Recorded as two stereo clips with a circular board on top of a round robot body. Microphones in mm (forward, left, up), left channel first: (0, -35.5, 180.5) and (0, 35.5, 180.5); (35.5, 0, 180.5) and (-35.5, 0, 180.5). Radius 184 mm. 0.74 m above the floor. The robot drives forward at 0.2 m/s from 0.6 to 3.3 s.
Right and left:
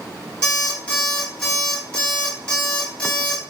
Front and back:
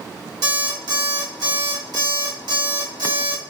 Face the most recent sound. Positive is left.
turn(degrees=-170)